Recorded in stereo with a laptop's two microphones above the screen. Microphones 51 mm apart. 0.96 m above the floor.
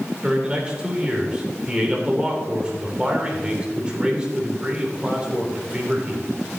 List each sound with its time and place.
0.2 s a man speaking: 20° right (ahead or behind), 3 m